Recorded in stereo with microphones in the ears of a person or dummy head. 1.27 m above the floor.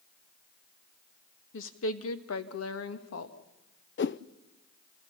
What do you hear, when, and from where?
1.5 s a woman speaking: 75° left (ahead or behind), 1.5 m; by 3.4 s 65° left (ahead or behind), 1.9 m
4.0 s a whoosh: 45° left (ahead or behind), 0.5 m